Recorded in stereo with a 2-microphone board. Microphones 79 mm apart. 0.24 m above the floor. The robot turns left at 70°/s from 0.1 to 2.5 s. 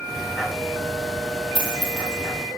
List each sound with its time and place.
1.6 s a dropped coin: 80° right, 4 m; by 2.2 s 55° right (ahead or behind), 4 m